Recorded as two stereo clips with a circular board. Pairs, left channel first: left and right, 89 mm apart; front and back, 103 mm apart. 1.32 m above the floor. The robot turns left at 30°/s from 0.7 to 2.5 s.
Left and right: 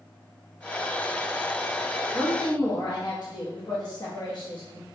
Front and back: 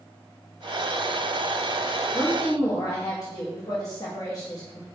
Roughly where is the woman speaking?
Ahead left.